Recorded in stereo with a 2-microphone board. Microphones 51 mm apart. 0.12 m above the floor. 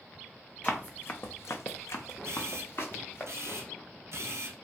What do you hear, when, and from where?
0.6 s running footsteps: 25° left (ahead or behind), 0.6 m; by 3.2 s 45° left (ahead or behind), 1.0 m
2.2 s a camera shutter: 65° right (ahead or behind), 0.7 m